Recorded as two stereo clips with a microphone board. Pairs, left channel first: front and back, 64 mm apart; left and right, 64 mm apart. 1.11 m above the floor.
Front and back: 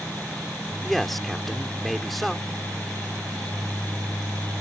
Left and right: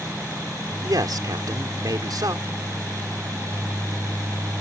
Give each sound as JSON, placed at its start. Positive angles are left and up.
{"t": 0.8, "sound": "a man speaking", "azimuth_deg": -90}